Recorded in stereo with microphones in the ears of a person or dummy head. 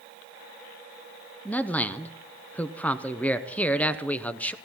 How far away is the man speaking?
About 0.6 m.